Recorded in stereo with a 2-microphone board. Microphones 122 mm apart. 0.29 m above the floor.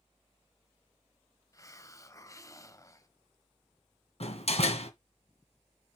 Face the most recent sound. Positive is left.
turn(degrees=60)  # may be behind; listen again after turning